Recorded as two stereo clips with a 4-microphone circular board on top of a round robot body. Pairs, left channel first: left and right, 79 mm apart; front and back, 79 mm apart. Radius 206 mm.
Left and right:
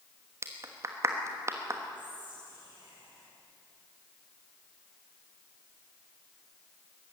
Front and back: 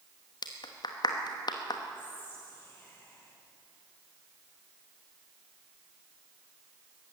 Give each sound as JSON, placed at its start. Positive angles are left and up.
{"t": 0.4, "sound": "a clap", "azimuth_deg": -35, "distance_m": 1.2}
{"t": 1.9, "sound": "whispering", "azimuth_deg": -65, "distance_m": 8.0}